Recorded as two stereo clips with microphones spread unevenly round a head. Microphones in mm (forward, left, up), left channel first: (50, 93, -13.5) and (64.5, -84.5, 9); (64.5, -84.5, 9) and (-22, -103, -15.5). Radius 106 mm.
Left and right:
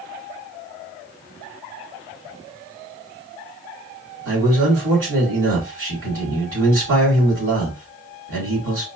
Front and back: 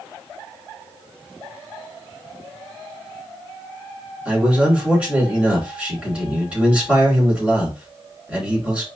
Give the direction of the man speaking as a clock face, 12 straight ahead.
3 o'clock.